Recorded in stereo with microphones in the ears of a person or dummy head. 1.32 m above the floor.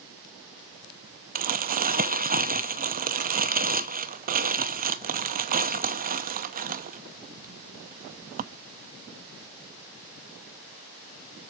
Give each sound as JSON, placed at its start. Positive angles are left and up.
{"t": 1.4, "sound": "crumpling", "side_deg": -35, "distance_m": 0.7}